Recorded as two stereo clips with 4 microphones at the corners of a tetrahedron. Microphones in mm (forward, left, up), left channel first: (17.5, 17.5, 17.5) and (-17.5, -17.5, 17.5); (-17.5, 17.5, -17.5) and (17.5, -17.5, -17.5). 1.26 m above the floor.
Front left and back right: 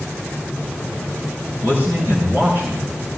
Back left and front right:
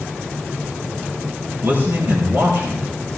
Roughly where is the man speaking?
Right.